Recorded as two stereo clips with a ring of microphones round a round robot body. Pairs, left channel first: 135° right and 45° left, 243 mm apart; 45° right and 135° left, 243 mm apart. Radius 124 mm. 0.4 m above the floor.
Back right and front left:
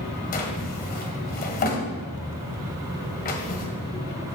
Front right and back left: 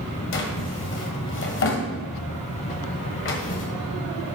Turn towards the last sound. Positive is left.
turn(degrees=-80)